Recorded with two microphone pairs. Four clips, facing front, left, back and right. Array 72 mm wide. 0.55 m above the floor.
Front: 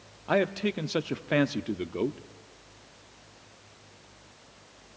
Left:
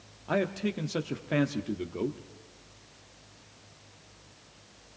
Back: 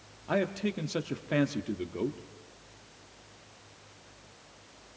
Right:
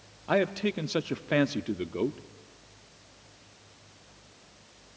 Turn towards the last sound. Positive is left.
turn(degrees=-50)